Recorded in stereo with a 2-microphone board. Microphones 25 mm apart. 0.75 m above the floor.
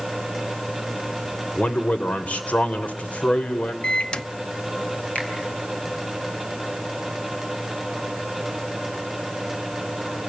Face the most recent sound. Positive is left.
turn(degrees=70)  # may be behind; listen again after turning